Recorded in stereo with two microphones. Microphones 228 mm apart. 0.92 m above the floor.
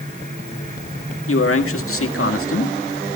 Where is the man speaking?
70° left (ahead or behind), 1.8 m.